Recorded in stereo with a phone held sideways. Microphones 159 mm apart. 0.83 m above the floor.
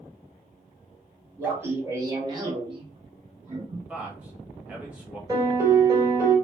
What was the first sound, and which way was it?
Laughter, 15° right (ahead or behind).